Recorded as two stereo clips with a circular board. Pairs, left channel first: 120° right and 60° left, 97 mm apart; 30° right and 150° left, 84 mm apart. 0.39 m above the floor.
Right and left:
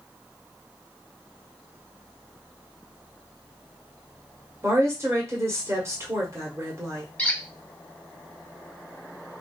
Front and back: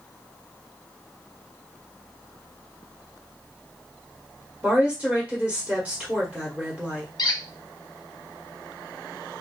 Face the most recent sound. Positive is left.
turn(degrees=-50)